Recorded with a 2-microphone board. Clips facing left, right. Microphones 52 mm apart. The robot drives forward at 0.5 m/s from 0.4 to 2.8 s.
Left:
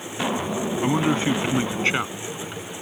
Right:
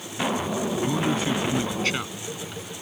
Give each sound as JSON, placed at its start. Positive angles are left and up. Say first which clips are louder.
{"t": 0.8, "sound": "a man speaking", "louder": "left 6 dB", "side_deg": 35}